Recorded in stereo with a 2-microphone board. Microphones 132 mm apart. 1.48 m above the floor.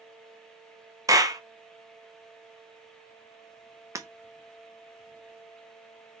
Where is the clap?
25° right (ahead or behind), 0.6 m.